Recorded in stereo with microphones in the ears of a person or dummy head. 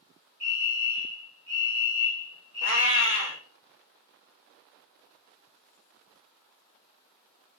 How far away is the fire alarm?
About 1.7 m.